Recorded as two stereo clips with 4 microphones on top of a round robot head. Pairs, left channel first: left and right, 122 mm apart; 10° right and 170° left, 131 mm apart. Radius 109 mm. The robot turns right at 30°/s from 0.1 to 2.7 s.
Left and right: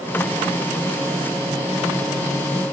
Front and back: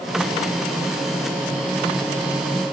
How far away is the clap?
No clap in this recording.